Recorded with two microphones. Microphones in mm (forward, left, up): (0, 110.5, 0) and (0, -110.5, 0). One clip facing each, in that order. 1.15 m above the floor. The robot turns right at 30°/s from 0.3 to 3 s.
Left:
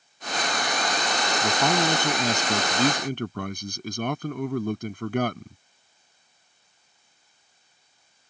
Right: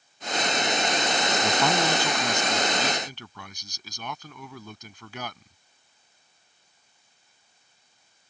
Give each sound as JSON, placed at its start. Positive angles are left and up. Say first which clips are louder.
{"t": 1.4, "sound": "a man speaking", "louder": "left 2 dB", "azimuth_deg": 5}